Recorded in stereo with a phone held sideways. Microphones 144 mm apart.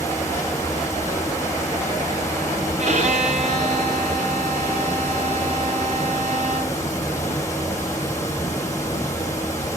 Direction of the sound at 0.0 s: 20° left (ahead or behind).